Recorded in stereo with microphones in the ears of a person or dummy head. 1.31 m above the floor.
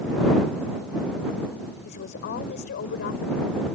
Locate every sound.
1.8 s a woman speaking: 50° left (ahead or behind)